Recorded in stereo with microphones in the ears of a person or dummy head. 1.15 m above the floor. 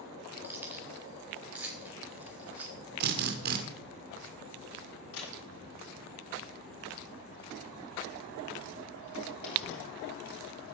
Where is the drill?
60° right (ahead or behind), 1.8 m.